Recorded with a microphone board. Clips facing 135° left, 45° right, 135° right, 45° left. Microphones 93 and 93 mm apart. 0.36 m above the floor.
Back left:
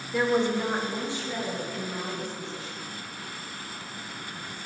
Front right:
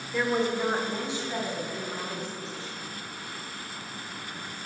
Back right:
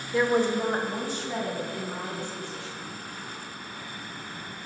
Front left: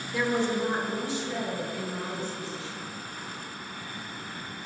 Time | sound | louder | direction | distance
0.1 | a woman speaking | back left 2 dB, back right 4 dB | 150° right | 1.0 m